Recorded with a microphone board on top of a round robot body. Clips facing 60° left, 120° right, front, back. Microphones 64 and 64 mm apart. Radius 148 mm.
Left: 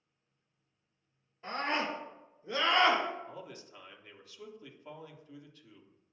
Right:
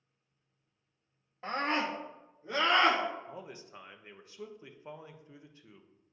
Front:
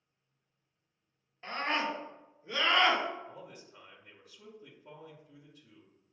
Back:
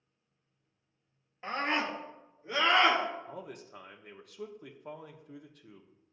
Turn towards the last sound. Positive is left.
turn(degrees=175)